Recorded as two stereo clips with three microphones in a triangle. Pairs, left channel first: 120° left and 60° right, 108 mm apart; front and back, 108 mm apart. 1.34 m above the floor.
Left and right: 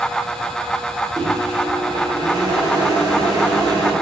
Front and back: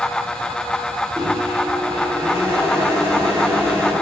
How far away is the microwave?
About 0.9 m.